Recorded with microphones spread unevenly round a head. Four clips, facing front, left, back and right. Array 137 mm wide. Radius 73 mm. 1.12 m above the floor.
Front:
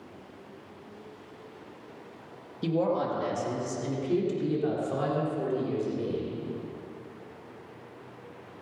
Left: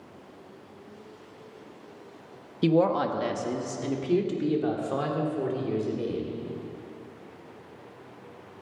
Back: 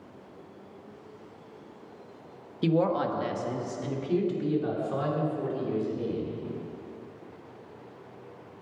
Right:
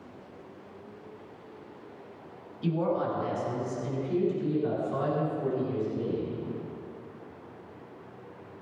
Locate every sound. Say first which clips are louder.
2.6 s a woman speaking: left 6 dB, back 2 dB; 110° left, 1.3 m; by 6.3 s 85° left, 4 m